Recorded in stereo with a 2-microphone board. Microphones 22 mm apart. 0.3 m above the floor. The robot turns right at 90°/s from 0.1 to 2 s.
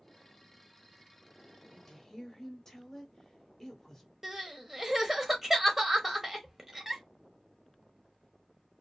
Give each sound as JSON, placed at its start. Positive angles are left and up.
{"t": 1.7, "sound": "a woman speaking", "side_deg": 15, "distance_m": 0.9}
{"t": 4.2, "sound": "crying", "side_deg": -15, "distance_m": 0.7}